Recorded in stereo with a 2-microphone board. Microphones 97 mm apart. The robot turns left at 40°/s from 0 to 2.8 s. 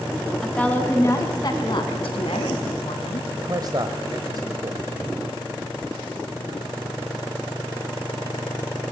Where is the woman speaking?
175° left, 3.5 m; by 3.3 s 80° left, 3.5 m.